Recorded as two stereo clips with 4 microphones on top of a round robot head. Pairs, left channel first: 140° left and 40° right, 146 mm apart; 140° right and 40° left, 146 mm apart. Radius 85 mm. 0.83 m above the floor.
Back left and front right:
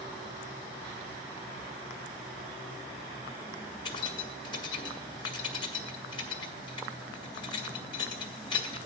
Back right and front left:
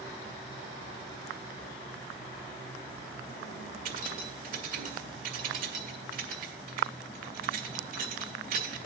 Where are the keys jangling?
75° left, 1.1 m.